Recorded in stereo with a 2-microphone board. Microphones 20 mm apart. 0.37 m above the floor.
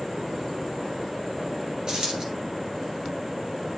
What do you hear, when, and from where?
1.9 s a dropped coin: 45° right (ahead or behind), 2.5 m